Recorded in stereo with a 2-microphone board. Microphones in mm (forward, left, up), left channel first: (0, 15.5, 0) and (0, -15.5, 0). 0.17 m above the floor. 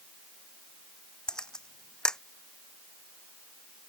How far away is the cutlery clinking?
I don't hear cutlery clinking.